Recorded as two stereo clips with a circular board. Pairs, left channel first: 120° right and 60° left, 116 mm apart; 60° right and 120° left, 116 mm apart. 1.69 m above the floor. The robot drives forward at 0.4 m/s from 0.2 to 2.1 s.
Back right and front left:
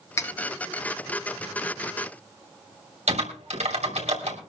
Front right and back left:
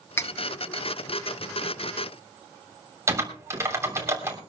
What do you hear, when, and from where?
0.2 s cutlery clinking: 95° right, 0.8 m; by 0.3 s 100° right, 0.8 m
3.1 s typing on a keyboard: 55° left, 3 m